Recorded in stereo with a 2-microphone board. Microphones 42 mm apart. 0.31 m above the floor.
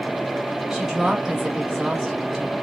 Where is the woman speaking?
10° right (ahead or behind), 1.5 m.